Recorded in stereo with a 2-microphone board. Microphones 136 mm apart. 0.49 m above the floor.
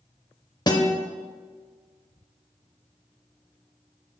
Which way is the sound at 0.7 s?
30° left (ahead or behind).